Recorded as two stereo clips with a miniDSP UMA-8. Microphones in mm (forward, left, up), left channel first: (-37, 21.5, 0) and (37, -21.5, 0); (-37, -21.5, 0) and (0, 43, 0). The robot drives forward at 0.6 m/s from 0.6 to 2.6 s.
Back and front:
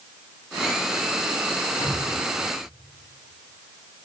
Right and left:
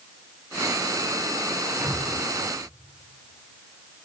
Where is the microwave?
125° left, 1.8 m; by 2.0 s 130° left, 1.9 m.